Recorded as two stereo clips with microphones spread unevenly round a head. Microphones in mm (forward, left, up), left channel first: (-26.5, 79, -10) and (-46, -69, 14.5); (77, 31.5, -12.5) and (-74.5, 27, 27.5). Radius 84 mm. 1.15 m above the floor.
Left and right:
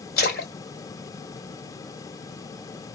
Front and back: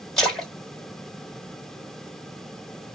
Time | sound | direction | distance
0.2 | a splash | 95° left | 1.9 m